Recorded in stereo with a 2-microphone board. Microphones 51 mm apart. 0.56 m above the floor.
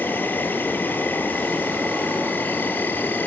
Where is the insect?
40° left (ahead or behind), 1.2 m.